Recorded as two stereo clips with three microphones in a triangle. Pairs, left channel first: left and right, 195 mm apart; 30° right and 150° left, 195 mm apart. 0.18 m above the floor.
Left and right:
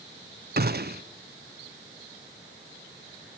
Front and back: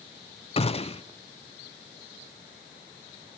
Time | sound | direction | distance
0.6 | a gunshot | 85° right | 0.7 m